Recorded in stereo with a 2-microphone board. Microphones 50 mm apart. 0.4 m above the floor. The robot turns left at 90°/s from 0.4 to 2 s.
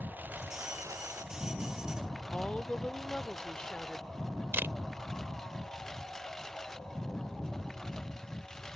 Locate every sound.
0.0 s a lawn mower: 40° right (ahead or behind); by 8.8 s 10° left (ahead or behind)
2.3 s a woman speaking: 20° left (ahead or behind)
4.5 s a camera shutter: 50° right (ahead or behind)